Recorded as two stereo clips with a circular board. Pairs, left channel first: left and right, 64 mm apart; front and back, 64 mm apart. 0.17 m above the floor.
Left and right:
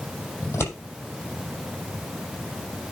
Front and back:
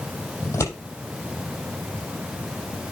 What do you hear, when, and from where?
0.4 s scissors: 40° left, 6 m